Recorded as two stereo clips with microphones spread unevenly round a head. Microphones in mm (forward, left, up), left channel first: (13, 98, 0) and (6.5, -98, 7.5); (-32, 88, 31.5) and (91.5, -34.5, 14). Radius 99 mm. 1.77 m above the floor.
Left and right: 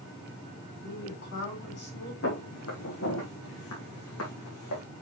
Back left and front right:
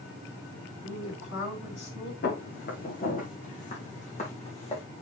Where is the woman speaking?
125° left, 6 m.